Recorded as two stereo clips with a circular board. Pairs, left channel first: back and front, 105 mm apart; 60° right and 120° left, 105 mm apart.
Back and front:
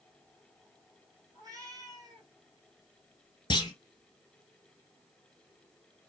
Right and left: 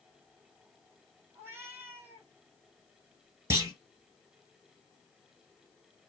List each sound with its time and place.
1.3 s a cat meowing: 55° left, 2.5 m
3.5 s a clunk: 175° left, 1.2 m